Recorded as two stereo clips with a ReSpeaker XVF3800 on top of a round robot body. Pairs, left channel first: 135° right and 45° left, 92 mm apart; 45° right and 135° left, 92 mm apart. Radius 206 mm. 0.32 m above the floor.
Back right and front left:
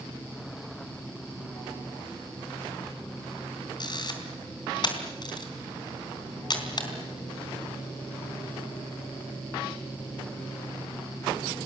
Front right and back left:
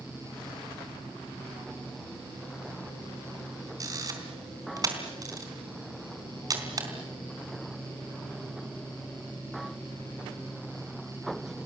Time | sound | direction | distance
3.8 | a camera shutter | 175° right | 4 m